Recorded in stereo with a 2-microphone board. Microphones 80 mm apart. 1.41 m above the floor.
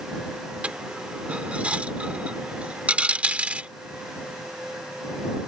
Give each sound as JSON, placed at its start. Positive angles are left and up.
{"t": 0.6, "sound": "a dropped coin", "side_deg": -20}